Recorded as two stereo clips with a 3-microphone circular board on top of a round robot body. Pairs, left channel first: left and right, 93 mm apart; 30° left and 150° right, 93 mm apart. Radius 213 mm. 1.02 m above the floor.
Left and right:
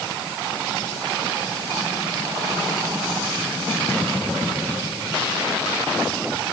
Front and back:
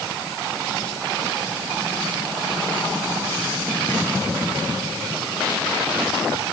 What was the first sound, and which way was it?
Only background noise.